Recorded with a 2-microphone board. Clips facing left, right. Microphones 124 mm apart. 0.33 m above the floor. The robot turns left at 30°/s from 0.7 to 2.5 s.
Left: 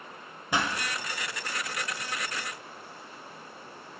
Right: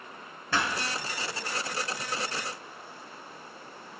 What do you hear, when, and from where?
0.5 s a pop: 15° left (ahead or behind), 1.4 m